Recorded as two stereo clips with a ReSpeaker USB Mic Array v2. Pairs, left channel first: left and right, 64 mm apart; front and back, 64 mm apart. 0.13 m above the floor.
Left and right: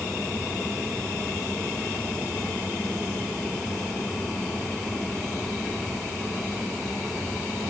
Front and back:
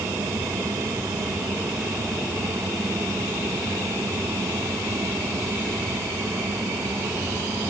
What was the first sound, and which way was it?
Only background noise.